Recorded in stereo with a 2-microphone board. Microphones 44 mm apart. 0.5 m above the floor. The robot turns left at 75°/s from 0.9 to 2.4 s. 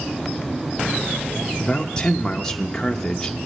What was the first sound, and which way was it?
A man speaking, 20° left (ahead or behind).